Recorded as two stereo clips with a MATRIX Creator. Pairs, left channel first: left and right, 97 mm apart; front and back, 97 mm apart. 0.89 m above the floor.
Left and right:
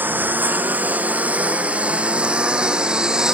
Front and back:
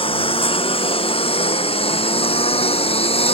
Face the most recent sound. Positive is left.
turn(degrees=-10)